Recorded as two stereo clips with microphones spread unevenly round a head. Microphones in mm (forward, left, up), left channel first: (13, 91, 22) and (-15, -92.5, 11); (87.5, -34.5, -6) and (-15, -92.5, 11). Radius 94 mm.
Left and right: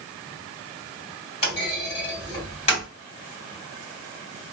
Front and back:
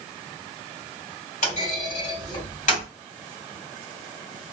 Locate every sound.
1.4 s a clunk: 20° left, 2 m